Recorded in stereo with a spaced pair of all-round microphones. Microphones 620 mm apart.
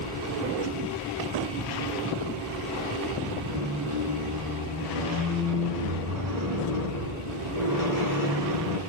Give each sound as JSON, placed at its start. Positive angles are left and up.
{"t": 3.5, "sound": "a squeak", "side_deg": -30, "distance_m": 7.0}